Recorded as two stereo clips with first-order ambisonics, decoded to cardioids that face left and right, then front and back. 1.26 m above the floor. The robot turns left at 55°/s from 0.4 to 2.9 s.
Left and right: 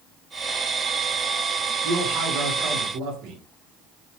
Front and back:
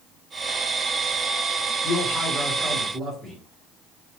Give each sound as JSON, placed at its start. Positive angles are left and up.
{"t": 1.8, "sound": "a man speaking", "azimuth_deg": -45, "distance_m": 0.9}